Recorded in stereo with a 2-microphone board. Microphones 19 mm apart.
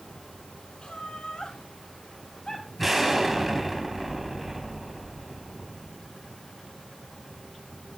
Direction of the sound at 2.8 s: 10° right (ahead or behind).